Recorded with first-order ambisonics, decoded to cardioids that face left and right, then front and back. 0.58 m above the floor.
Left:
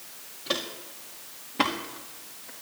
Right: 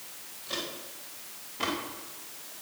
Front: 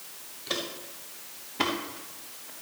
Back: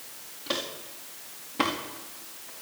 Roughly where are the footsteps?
Behind left.